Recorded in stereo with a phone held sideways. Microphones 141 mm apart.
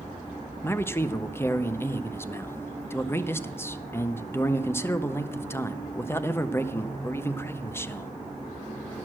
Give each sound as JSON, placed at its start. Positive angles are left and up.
{"t": 0.6, "sound": "a man speaking", "side_deg": 15, "distance_m": 0.6}